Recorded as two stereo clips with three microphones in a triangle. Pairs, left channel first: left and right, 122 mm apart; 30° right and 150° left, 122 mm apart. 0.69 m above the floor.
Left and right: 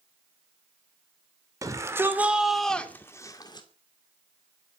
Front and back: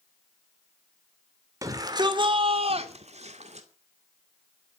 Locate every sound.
1.6 s a shout: 150° right, 2.5 m; by 3.7 s 135° left, 2.5 m